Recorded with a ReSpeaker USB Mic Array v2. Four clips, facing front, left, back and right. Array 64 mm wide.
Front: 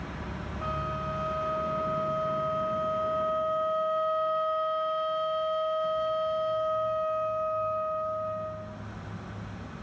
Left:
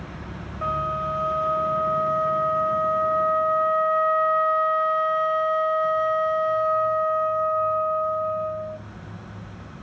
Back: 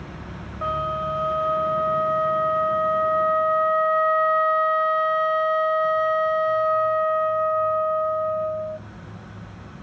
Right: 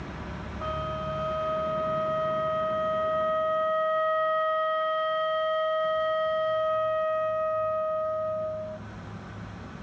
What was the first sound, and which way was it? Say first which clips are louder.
A flute: left 7 dB, back 8 dB; 155° left.